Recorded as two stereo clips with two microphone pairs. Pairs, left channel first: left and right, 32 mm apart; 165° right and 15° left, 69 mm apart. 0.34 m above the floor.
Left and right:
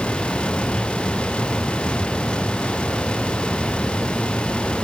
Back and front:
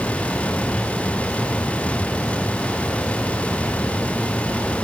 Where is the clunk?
I don't hear a clunk.